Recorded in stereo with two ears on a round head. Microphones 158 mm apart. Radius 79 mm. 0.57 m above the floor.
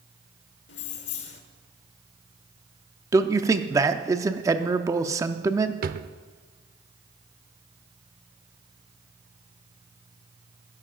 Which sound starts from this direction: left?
Keys jangling, at 0.7 s.